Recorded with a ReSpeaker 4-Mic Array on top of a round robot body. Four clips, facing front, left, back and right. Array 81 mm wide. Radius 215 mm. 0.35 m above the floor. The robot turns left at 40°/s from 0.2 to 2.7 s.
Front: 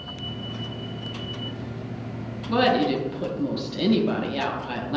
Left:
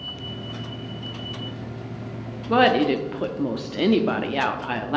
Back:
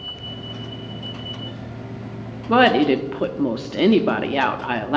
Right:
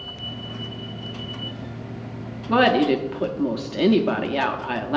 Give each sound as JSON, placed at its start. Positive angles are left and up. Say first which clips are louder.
{"t": 2.5, "sound": "a woman speaking", "louder": "even, back 6 dB", "azimuth_deg": -175, "distance_m": 1.0}